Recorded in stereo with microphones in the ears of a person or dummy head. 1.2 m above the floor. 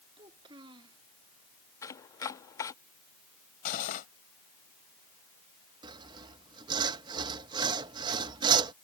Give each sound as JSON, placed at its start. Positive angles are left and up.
{"t": 0.2, "sound": "a child speaking", "side_deg": -25}
{"t": 1.8, "sound": "chopping", "side_deg": 20}
{"t": 3.6, "sound": "cutlery clinking", "side_deg": 50}
{"t": 5.8, "sound": "sawing", "side_deg": -25}